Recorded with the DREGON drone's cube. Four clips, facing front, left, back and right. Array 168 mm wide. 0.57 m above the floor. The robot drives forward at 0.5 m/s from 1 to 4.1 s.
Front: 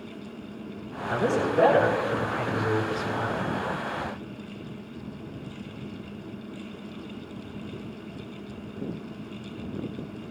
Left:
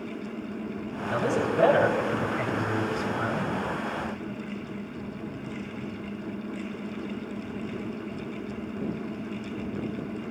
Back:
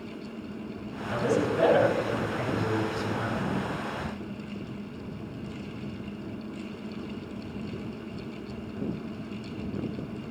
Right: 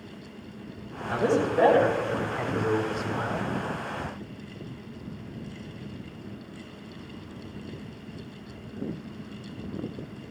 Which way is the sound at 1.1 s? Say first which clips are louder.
Right 2 dB, front 2 dB; 45° right.